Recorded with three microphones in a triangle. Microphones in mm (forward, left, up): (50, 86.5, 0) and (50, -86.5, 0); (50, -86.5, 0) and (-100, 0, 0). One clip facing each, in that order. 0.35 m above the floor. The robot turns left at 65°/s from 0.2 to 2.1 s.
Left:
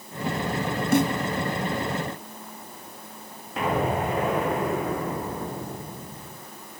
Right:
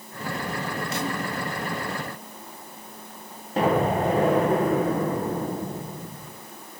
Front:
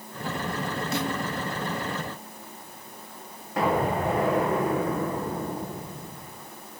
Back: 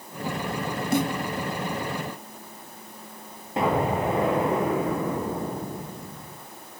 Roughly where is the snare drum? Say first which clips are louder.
Left 11 dB, back 6 dB; behind left.